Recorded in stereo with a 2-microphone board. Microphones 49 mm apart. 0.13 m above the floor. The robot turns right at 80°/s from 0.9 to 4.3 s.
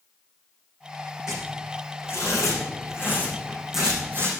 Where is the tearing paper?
15° right (ahead or behind), 5 m; by 4.3 s 50° right (ahead or behind), 5 m.